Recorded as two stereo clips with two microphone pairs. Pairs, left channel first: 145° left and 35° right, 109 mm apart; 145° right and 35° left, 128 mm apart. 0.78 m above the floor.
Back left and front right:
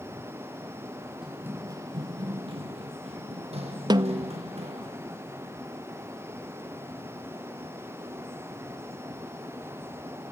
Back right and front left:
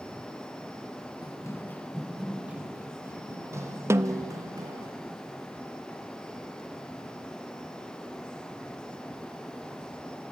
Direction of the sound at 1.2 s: 115° right.